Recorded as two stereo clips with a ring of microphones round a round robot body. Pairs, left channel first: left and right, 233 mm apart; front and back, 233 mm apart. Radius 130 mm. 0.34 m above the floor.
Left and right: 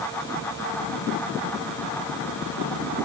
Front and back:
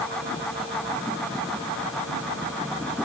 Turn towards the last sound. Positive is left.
No sound to turn to.